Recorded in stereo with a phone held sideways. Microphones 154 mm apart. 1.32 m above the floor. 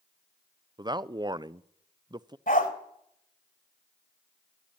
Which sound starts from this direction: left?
A dog barking, at 2.5 s.